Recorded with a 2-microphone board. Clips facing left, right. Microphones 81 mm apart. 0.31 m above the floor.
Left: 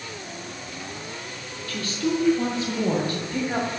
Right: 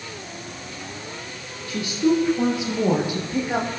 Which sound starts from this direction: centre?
A woman speaking, at 1.7 s.